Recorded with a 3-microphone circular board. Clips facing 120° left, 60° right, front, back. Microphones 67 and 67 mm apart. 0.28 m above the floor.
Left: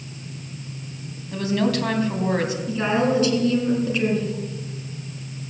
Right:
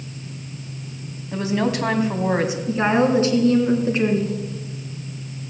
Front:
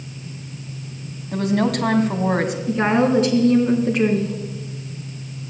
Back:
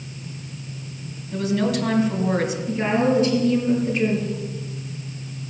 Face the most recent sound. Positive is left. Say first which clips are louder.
# right 3 dB, front 3 dB
turn(degrees=0)